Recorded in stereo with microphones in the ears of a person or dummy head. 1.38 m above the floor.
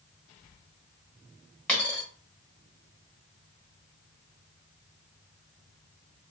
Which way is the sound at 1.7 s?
5° left (ahead or behind).